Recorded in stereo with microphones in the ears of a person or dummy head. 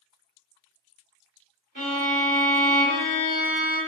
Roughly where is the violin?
Right.